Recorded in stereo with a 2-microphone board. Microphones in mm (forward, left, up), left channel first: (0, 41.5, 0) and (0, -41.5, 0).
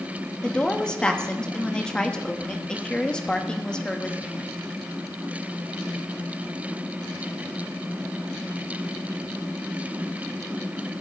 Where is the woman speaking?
10° left (ahead or behind), 1.0 m.